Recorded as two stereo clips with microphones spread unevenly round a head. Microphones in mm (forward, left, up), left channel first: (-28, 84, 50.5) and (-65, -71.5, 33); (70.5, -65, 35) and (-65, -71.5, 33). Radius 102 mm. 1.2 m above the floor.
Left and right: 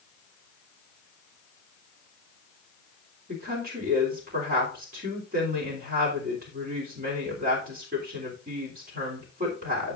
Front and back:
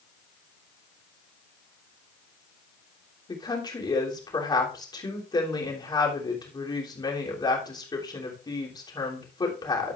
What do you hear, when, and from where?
3.3 s a woman speaking: 60° right, 3 m